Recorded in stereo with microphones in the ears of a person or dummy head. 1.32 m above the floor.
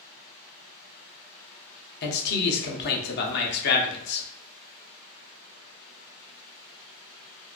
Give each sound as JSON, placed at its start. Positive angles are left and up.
{"t": 2.0, "sound": "a man speaking", "side_deg": 55, "distance_m": 0.8}